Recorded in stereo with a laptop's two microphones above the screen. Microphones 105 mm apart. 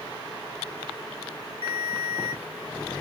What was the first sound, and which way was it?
A ringtone, 75° right (ahead or behind).